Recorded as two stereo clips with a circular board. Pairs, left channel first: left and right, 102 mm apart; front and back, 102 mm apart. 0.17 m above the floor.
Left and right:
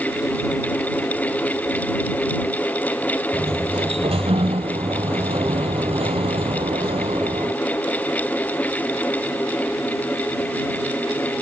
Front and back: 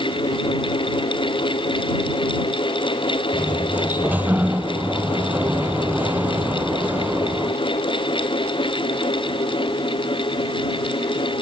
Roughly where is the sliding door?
Right.